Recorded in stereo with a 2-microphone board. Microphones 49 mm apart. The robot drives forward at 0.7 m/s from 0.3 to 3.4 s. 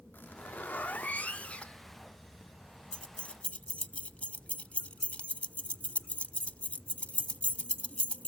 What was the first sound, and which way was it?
A zipper, 45° left (ahead or behind).